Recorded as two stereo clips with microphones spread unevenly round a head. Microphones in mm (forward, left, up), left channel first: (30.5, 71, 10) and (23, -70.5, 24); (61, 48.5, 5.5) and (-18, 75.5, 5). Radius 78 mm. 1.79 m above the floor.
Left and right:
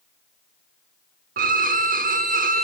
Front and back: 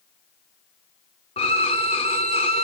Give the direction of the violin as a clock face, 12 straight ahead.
2 o'clock.